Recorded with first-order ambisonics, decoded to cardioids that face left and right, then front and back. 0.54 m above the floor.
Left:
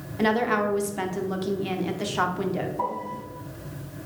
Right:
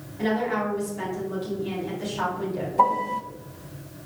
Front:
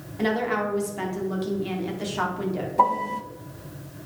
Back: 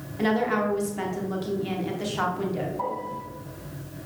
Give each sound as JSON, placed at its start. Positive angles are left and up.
{"t": 0.2, "sound": "a woman speaking", "azimuth_deg": 85, "distance_m": 1.1}
{"t": 2.8, "sound": "a piano", "azimuth_deg": -35, "distance_m": 0.9}